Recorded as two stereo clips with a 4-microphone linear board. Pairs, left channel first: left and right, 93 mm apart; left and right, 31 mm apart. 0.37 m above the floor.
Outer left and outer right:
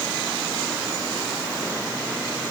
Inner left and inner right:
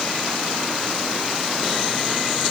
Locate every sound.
Only background noise.